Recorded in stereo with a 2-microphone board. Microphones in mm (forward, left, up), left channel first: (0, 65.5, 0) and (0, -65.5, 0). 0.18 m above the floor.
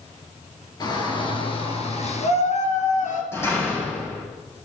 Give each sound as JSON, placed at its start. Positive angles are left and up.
{"t": 0.8, "sound": "a shout", "side_deg": 30, "distance_m": 3.5}
{"t": 3.3, "sound": "a door slam", "side_deg": 20, "distance_m": 7.0}